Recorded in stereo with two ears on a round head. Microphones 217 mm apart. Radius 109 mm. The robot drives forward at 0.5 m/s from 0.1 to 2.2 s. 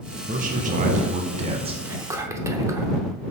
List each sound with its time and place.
0.3 s a man speaking: 35° right (ahead or behind), 0.8 m; by 1.8 s 25° right (ahead or behind), 1.2 m
1.9 s whispering: 15° right (ahead or behind), 0.7 m; by 2.9 s 10° right (ahead or behind), 0.8 m